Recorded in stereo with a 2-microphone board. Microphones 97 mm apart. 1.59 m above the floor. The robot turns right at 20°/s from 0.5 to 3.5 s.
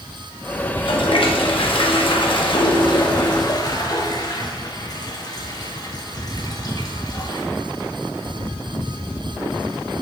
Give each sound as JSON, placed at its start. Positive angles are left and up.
{"t": 0.7, "sound": "a toilet flushing", "azimuth_deg": 75, "distance_m": 1.2}